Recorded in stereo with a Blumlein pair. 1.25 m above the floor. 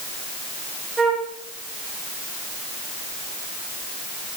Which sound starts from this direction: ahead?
A flute, at 1.0 s.